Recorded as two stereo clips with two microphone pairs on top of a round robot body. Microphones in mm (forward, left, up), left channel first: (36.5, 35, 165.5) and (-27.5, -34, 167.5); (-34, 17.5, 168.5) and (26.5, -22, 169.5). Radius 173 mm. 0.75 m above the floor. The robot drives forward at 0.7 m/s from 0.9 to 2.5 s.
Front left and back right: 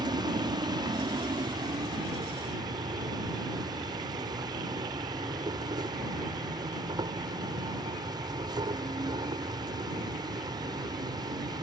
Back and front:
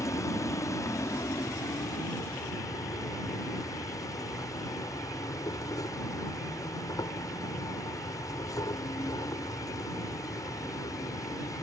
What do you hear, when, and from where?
0.0 s an insect: 175° right